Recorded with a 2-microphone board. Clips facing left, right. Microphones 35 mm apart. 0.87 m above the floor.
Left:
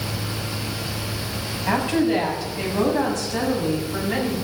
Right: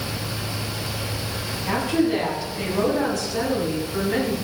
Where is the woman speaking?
65° left (ahead or behind), 6.5 m; by 4.3 s 50° left (ahead or behind), 7.5 m.